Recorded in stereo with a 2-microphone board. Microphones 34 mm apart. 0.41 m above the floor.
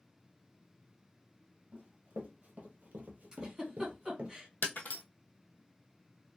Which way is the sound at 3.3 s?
20° right (ahead or behind).